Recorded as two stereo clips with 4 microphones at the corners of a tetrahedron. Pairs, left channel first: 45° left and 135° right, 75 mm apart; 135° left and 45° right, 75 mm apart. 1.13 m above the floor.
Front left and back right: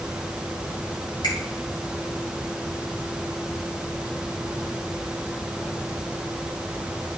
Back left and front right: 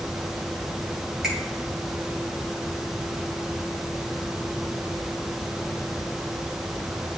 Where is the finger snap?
40° left, 5 m.